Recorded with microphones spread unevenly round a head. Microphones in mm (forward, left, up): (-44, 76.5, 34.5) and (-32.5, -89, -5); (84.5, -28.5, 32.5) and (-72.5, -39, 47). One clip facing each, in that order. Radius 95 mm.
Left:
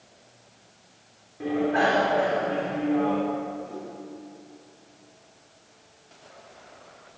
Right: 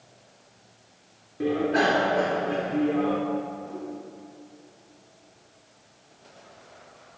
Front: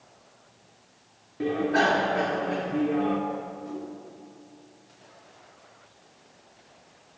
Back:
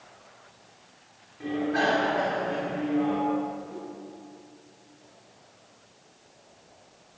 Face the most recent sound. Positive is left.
turn(degrees=5)